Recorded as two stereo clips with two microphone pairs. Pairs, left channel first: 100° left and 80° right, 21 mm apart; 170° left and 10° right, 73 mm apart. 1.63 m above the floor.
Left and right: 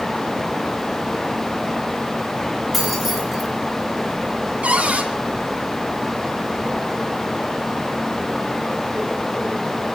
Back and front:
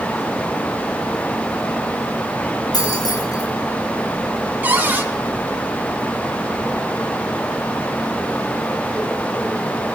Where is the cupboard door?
75° right, 2.5 m.